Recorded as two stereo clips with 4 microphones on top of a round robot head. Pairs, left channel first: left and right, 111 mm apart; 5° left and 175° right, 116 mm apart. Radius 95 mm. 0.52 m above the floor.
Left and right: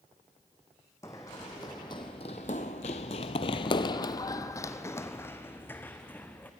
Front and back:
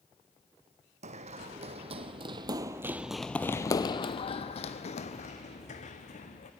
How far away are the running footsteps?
About 1.5 m.